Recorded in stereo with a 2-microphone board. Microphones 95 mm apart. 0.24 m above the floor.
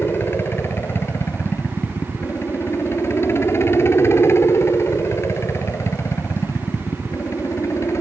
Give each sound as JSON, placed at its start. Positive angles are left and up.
{"t": 0.0, "sound": "a helicopter", "side_deg": 25}